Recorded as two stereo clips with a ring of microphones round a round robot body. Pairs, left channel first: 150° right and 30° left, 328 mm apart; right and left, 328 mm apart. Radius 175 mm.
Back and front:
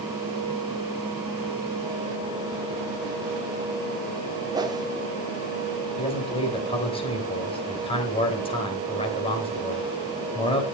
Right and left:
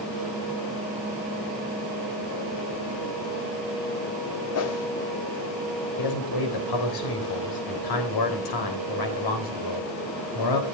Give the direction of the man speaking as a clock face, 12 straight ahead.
3 o'clock.